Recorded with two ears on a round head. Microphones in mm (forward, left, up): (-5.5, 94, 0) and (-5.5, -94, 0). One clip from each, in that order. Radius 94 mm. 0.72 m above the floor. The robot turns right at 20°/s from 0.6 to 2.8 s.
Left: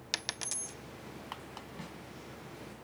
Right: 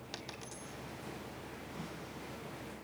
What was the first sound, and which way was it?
A dropped coin, 60° left (ahead or behind).